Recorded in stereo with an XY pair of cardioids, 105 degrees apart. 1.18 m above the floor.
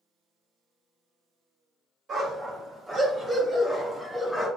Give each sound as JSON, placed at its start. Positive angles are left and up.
{"t": 2.1, "sound": "a dog barking", "azimuth_deg": -50, "distance_m": 1.9}